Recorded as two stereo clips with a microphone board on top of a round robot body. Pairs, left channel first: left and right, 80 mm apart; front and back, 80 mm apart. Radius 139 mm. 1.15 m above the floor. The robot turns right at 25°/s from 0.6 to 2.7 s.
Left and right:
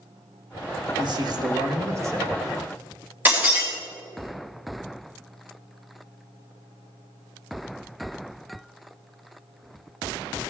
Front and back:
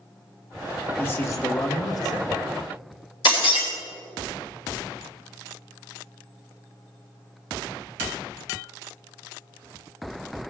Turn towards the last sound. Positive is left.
turn(degrees=-20)